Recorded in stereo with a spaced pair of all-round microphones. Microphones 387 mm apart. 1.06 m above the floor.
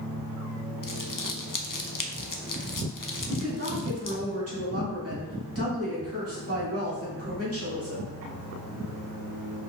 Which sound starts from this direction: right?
A woman speaking, at 3.3 s.